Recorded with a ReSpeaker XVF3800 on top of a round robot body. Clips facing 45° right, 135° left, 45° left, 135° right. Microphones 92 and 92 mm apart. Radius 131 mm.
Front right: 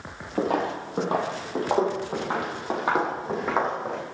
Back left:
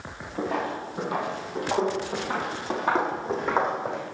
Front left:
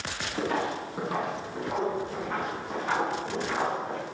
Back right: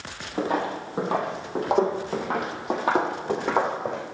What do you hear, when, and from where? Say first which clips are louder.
0.4 s footsteps: front right 3 dB, back right 3 dB; 65° right, 1.8 m; by 4.0 s 140° right, 3 m